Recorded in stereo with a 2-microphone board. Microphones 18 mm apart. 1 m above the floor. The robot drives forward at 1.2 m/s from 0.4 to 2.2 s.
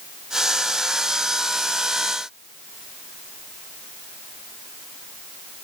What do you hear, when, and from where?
Only background noise.